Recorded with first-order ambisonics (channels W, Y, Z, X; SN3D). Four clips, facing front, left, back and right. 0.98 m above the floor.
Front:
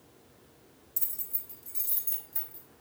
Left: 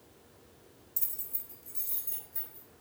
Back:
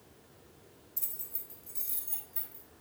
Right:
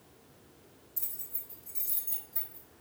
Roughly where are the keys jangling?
Ahead left.